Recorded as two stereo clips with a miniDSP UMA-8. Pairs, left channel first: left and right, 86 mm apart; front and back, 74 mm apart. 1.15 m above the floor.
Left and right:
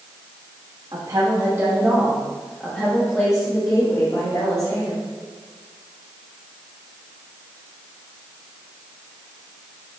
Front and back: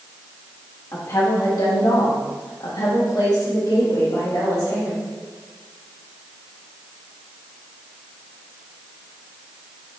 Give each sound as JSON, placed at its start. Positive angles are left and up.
{"t": 0.9, "sound": "a woman speaking", "azimuth_deg": -50, "distance_m": 1.4}